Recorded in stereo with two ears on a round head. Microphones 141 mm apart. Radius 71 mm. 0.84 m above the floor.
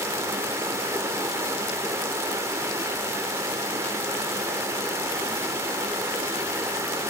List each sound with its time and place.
0.0 s running water: 15° right (ahead or behind), 0.8 m